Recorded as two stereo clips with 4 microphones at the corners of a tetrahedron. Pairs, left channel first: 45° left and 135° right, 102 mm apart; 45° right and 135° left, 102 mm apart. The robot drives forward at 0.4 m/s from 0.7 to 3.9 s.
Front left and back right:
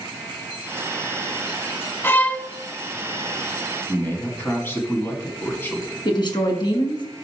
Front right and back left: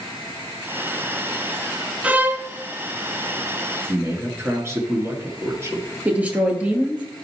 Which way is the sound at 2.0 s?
80° left.